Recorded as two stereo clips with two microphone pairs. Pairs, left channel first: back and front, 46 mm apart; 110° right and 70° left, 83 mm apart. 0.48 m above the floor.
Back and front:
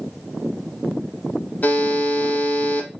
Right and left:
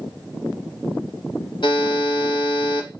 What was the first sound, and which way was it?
A buzzer, 130° right.